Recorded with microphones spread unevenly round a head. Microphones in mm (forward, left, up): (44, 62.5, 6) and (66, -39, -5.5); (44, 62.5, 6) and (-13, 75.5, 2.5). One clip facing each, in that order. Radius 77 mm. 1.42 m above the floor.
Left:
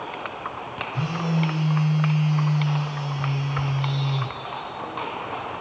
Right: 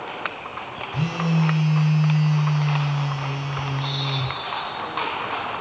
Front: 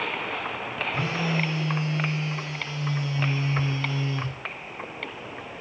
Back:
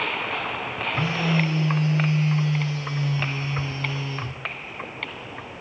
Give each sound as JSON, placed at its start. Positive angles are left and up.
{"t": 0.9, "sound": "a phone buzzing", "azimuth_deg": -65, "distance_m": 2.0}